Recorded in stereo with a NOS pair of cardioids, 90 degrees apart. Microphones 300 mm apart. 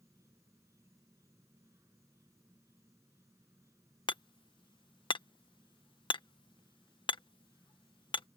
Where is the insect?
10° right.